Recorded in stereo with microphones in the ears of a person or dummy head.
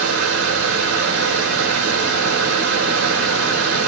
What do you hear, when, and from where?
0.0 s a fan: 80° right, 1.8 m